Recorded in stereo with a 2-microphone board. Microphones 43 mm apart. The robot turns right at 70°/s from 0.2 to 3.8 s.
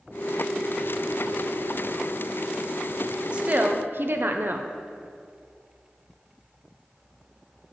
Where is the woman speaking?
155° right, 0.5 m; by 4.7 s 120° right, 0.5 m.